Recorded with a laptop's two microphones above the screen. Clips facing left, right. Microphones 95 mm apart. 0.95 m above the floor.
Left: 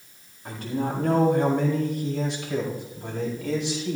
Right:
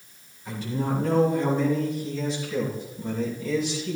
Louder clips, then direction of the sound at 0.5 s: Even; 55° left (ahead or behind).